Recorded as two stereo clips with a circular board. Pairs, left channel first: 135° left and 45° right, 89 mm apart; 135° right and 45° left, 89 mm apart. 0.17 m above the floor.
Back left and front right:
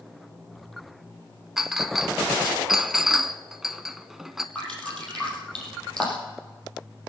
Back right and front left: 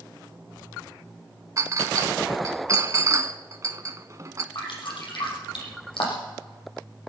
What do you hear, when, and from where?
1.6 s a clink: 40° left, 1.0 m
4.5 s dripping: 145° right, 6.5 m